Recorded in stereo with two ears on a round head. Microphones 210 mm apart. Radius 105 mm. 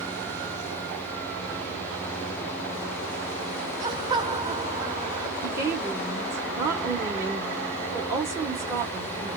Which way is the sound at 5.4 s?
15° right (ahead or behind).